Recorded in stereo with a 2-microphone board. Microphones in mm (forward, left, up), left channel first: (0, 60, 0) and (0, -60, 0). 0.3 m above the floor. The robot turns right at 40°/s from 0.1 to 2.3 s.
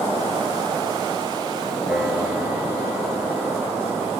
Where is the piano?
10° right (ahead or behind), 6 m; by 4.1 s 25° right (ahead or behind), 6 m.